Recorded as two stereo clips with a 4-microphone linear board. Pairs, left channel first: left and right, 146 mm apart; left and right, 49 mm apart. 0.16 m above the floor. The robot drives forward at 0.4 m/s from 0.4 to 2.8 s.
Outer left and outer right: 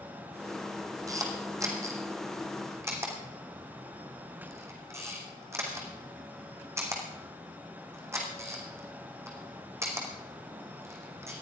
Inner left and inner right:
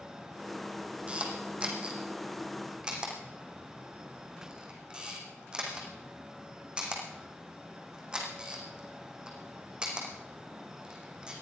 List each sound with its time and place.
1.1 s a camera shutter: 25° right (ahead or behind), 3 m; by 11.3 s 20° right (ahead or behind), 3.5 m